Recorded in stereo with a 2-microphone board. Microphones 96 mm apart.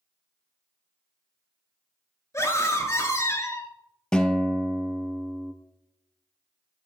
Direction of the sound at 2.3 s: 30° left (ahead or behind).